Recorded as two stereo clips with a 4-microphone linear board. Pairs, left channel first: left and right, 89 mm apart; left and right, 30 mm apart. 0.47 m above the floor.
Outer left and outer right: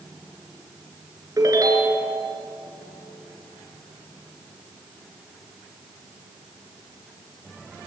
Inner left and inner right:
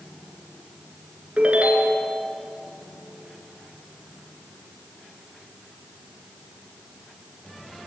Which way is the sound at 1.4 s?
40° right (ahead or behind).